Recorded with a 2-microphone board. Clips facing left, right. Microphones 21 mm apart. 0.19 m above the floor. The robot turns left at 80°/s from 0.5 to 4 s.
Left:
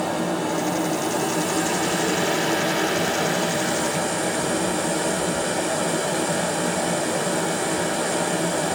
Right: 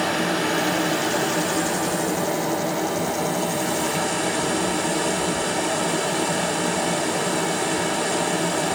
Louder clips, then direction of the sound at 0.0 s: Right 2 dB; 85° right.